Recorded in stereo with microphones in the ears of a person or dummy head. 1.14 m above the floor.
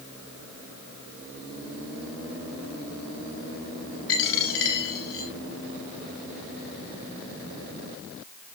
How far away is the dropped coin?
About 2.5 m.